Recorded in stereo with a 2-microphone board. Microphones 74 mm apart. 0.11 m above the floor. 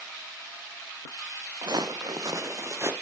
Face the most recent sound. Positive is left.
turn(degrees=-35)  # may be behind; listen again after turning